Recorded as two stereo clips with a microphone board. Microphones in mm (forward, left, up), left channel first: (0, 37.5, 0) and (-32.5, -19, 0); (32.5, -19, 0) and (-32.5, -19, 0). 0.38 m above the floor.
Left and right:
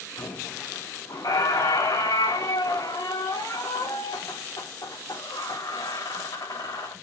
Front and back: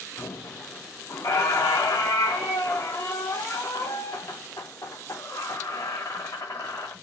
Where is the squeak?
40° left, 3.5 m.